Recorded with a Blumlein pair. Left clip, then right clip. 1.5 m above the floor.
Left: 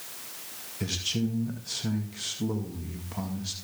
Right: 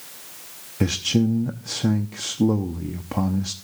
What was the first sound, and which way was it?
A man speaking, 50° right.